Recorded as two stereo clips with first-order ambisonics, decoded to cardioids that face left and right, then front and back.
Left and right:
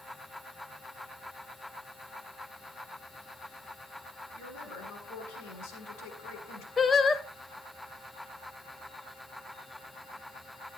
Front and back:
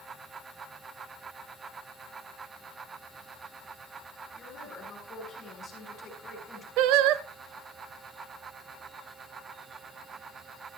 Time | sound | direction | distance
4.3 | a woman speaking | 65° left | 6.5 m
6.8 | singing | 165° left | 0.7 m